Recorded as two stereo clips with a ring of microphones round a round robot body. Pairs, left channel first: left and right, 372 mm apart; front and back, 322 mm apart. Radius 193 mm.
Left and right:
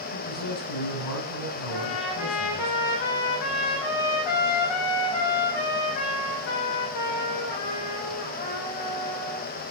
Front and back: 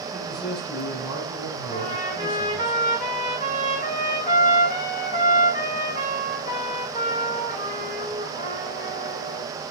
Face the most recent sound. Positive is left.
turn(degrees=65)